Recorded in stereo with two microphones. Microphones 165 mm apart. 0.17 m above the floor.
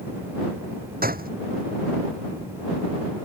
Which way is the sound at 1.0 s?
65° right (ahead or behind).